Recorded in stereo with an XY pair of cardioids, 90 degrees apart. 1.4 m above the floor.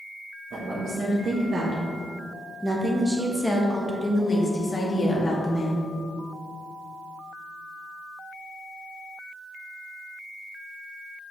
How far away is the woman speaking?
About 1.8 m.